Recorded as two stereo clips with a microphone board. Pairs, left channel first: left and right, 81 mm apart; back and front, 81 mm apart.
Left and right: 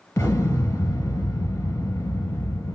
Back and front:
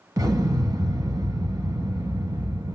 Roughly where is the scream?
No scream in this recording.